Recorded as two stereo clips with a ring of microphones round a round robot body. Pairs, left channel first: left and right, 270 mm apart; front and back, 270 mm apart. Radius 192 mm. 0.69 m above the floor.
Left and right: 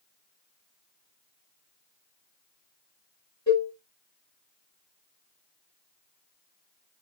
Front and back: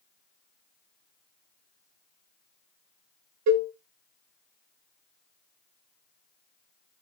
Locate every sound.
3.5 s a cowbell: 165° left, 0.8 m